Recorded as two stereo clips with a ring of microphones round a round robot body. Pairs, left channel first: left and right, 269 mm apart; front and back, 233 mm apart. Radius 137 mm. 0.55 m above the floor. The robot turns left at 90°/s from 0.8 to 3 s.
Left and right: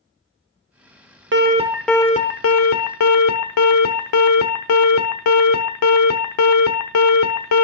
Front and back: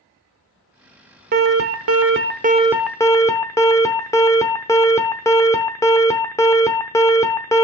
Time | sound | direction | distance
1.3 | an alarm | 130° right | 1.0 m